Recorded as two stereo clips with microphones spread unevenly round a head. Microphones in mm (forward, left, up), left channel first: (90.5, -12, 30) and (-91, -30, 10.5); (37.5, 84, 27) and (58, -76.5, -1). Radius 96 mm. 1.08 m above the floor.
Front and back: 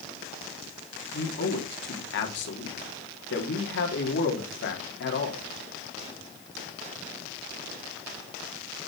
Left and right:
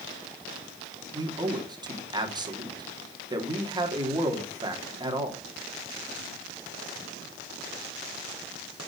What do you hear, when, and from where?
1.1 s a man speaking: 20° right, 3 m